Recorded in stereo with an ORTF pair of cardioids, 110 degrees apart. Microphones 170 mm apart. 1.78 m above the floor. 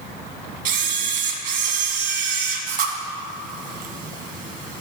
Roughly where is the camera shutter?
Ahead right.